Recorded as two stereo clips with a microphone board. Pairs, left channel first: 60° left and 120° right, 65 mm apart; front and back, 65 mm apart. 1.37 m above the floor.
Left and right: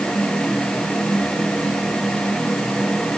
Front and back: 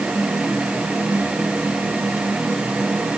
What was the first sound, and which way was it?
Only background noise.